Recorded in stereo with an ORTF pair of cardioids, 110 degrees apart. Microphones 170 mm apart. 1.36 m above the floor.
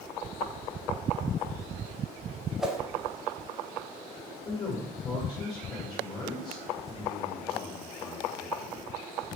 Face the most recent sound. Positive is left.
turn(degrees=25)